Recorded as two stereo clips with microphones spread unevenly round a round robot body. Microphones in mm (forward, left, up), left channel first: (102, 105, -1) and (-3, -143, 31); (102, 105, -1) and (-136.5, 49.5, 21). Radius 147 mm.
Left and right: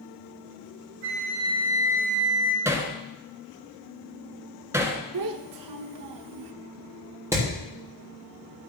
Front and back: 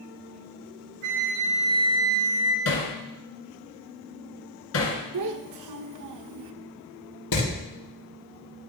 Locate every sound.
1.0 s a flute: 155° right, 2.5 m
2.6 s hammering: 35° right, 2 m
5.1 s a child speaking: 140° right, 0.9 m
7.3 s hammering: 35° right, 6.5 m